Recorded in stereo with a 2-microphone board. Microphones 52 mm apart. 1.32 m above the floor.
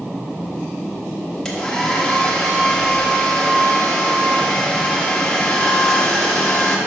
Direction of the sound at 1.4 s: 10° left (ahead or behind).